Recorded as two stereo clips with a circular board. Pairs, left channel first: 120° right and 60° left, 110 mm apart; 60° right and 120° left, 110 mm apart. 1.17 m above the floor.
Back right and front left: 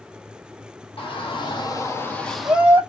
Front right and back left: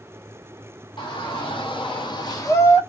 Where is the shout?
95° right, 1.2 m; by 2.8 s straight ahead, 0.8 m.